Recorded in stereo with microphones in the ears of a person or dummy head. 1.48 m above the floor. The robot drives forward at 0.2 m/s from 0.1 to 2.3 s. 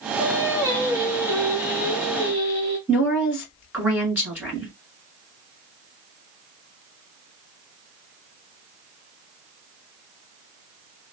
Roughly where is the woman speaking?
Centre.